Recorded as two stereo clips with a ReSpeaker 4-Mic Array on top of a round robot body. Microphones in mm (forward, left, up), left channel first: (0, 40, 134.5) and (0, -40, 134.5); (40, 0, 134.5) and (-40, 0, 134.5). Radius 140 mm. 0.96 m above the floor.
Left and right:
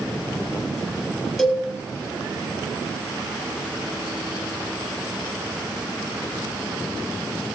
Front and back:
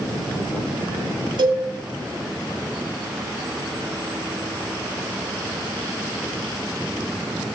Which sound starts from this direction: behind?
A cowbell, at 1.4 s.